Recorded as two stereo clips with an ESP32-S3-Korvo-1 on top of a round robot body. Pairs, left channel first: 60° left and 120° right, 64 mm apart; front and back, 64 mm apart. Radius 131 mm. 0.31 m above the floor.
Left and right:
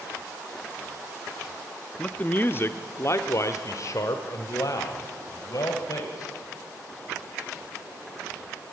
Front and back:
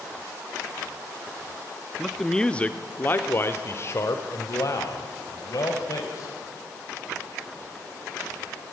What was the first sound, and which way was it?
A man speaking, 95° left.